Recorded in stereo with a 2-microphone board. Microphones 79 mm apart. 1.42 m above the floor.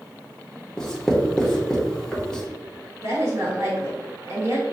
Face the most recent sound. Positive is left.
turn(degrees=-40)  # may be behind; listen again after turning